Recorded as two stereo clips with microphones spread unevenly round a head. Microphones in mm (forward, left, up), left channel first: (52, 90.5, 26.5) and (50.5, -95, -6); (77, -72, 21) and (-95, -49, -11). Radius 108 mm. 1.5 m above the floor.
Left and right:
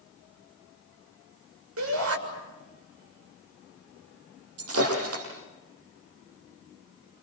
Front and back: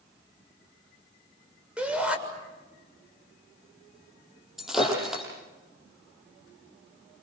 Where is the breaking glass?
100° right, 7 m.